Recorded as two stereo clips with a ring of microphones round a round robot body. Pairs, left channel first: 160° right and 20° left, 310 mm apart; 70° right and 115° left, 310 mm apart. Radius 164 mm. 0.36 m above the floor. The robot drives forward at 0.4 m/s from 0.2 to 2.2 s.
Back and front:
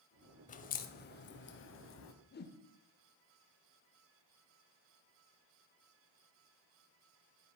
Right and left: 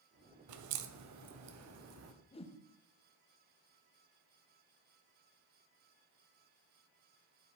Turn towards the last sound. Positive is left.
turn(degrees=-125)